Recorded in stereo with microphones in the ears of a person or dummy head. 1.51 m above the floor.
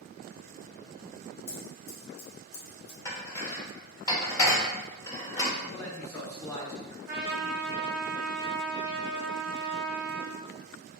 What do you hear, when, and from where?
1.5 s scissors: 75° left (ahead or behind), 1.6 m
3.0 s dishes clattering: 20° left (ahead or behind), 1.0 m
5.7 s a man speaking: 10° left (ahead or behind), 1.4 m
7.1 s a trumpet: 5° right (ahead or behind), 1.4 m